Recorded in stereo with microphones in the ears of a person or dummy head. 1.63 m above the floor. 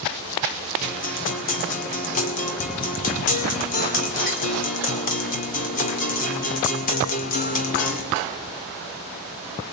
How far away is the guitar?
About 2.5 m.